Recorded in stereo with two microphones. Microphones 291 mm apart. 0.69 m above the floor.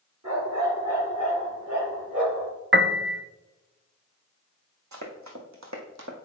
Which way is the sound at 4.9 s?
70° right (ahead or behind).